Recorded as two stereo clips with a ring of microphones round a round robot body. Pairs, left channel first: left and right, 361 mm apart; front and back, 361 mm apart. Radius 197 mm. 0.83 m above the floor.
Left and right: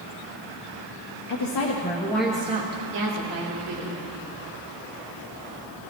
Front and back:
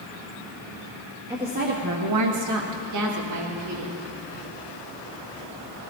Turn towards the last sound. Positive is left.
turn(degrees=-135)